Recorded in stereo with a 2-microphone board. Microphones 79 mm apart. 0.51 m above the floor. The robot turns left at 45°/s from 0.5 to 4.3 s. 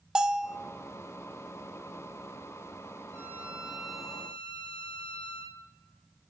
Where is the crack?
No crack in this recording.